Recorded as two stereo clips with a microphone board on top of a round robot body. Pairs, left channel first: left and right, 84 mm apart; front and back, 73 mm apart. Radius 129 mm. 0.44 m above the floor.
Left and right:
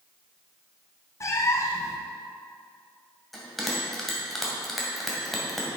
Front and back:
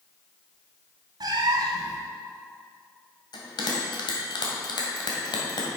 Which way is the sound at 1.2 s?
145° left.